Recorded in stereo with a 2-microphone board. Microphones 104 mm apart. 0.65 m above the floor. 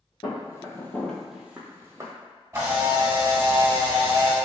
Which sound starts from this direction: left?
Footsteps, at 0.2 s.